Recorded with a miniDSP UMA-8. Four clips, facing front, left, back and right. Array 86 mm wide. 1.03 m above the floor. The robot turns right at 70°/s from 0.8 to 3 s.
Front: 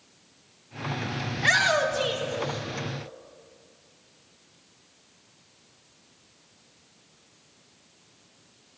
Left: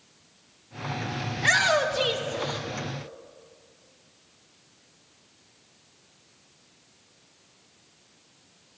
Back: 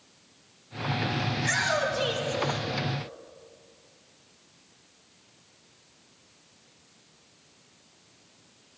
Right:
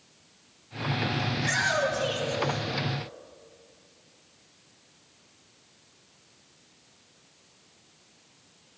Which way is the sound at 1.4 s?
35° left.